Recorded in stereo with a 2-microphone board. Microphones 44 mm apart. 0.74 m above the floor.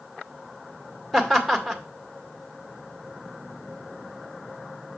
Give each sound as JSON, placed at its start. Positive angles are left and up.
{"t": 1.1, "sound": "laughter", "side_deg": 0, "distance_m": 2.0}